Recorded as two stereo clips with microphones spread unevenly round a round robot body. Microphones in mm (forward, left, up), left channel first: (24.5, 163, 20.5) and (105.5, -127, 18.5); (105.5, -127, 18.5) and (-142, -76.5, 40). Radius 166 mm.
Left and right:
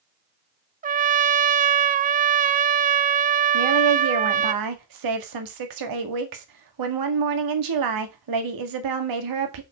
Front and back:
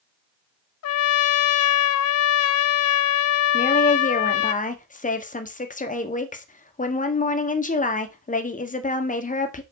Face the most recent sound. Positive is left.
turn(degrees=-70)